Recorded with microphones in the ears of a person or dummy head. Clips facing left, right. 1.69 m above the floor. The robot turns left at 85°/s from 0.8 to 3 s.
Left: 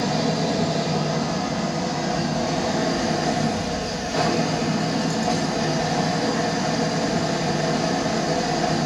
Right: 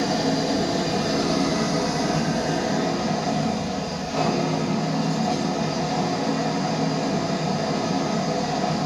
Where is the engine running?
15° right, 1.6 m; by 8.9 s 160° left, 1.6 m.